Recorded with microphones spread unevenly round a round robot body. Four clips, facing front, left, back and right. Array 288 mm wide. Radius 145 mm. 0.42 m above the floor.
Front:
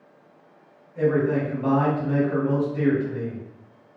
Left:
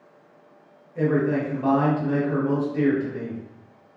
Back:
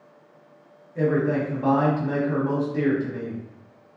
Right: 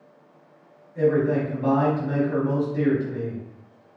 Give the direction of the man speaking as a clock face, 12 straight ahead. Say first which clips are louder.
Right 1 dB, front 1 dB; 7 o'clock.